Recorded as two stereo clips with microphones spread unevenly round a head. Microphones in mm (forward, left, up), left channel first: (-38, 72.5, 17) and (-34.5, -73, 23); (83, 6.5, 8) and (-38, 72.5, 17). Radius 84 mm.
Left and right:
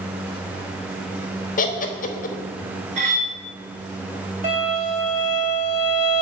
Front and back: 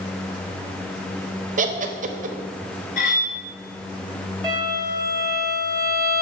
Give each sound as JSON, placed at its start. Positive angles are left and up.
{"t": 1.6, "sound": "laughter", "azimuth_deg": 125, "distance_m": 1.1}
{"t": 3.0, "sound": "cutlery clinking", "azimuth_deg": -55, "distance_m": 1.2}
{"t": 4.4, "sound": "a violin", "azimuth_deg": -120, "distance_m": 3.0}